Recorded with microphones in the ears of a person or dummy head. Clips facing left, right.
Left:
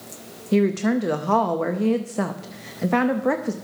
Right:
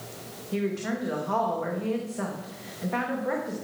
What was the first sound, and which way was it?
A woman speaking, 65° left (ahead or behind).